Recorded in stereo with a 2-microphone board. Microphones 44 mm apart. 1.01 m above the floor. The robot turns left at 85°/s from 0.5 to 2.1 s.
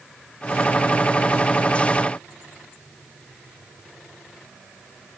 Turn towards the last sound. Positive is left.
No sound to turn to.